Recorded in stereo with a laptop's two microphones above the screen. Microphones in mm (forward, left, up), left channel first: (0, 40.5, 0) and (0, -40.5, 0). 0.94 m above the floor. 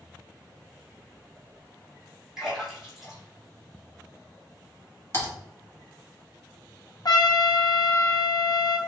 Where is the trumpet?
55° left (ahead or behind), 0.9 m.